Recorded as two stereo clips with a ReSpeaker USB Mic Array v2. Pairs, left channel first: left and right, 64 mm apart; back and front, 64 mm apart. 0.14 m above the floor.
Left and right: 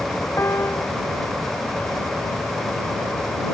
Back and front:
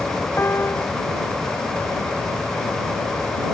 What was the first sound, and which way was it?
A piano, 130° left.